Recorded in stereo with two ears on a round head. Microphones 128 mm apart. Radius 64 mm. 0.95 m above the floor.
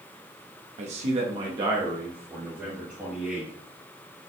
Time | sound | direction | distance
0.8 | a man speaking | 50° right (ahead or behind) | 0.8 m